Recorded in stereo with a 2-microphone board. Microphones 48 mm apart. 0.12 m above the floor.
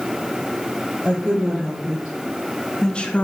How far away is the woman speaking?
About 2.5 m.